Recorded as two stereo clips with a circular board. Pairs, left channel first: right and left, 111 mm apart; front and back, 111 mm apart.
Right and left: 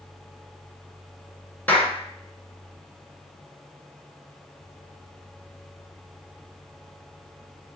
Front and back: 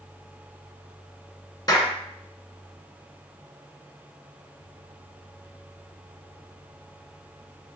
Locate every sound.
1.7 s a clap: 25° right, 1.7 m